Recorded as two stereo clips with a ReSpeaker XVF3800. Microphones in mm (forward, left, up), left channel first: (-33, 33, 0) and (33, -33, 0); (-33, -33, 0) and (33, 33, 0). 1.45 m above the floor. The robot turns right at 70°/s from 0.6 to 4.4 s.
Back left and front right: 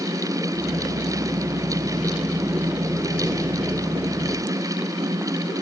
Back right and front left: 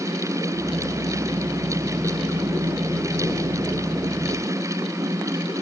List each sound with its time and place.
Only background noise.